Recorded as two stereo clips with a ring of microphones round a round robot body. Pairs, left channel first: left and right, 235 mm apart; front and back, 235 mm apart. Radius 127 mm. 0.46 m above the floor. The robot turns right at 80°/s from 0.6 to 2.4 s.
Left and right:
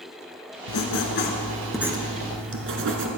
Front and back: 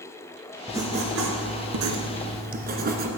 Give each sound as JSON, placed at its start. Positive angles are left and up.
{"t": 0.7, "sound": "writing", "azimuth_deg": 95, "distance_m": 1.4}